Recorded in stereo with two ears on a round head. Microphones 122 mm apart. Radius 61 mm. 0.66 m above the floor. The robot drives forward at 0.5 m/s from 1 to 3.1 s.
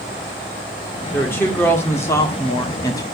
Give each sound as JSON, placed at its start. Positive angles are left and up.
{"t": 1.1, "sound": "a woman speaking", "side_deg": 15, "distance_m": 2.0}